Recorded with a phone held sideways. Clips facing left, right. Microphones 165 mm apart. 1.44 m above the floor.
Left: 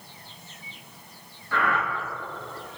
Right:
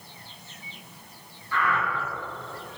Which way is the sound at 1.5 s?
60° left (ahead or behind).